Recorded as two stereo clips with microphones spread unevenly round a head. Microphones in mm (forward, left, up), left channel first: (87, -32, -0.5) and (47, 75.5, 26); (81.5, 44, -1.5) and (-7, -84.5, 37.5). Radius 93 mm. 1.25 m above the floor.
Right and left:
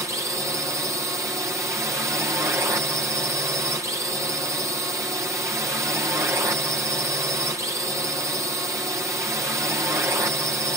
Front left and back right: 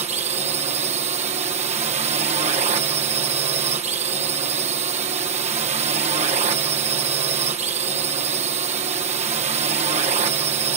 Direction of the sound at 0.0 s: 175° right.